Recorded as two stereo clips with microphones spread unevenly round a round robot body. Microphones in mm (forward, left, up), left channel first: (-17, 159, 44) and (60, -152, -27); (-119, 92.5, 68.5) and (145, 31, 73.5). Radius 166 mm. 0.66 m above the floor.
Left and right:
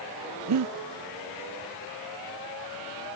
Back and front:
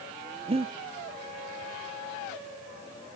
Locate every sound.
0.5 s breathing: 80° right, 0.9 m